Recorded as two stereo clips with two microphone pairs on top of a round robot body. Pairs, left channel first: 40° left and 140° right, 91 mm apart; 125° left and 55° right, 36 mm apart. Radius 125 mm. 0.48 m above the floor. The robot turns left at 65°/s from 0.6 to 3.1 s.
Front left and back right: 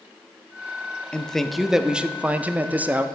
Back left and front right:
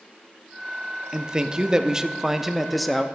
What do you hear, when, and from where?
1.1 s a man speaking: 40° right, 0.7 m; by 3.0 s 165° right, 0.7 m